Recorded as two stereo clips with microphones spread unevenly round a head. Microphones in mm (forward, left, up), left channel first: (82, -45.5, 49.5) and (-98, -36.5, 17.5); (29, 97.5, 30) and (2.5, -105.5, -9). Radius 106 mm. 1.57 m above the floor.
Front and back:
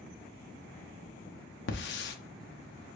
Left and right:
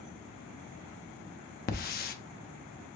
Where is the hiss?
35° left, 0.7 m.